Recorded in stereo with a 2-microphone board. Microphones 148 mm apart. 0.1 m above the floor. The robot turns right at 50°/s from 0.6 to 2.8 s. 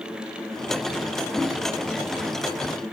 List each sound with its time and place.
1.3 s a whoosh: 5° right (ahead or behind), 1.1 m; by 1.6 s 15° right (ahead or behind), 1.1 m